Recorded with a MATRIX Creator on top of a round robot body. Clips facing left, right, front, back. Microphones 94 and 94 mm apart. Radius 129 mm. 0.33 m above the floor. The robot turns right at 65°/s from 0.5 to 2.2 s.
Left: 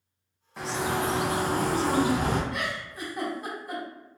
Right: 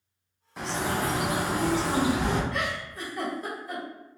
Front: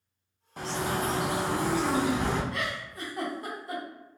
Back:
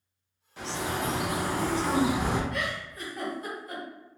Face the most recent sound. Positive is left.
turn(degrees=25)